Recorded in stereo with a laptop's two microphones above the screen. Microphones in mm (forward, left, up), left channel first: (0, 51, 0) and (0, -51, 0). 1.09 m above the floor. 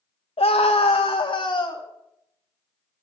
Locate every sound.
0.4 s a scream: 70° left (ahead or behind), 0.6 m; by 1.9 s 45° left (ahead or behind), 1.2 m